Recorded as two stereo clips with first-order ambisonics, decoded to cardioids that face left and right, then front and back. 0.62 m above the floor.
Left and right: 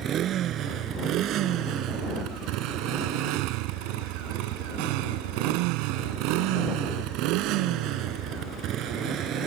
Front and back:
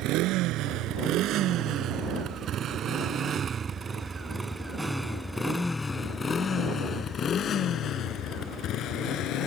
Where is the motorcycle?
145° right; by 9.5 s 40° right.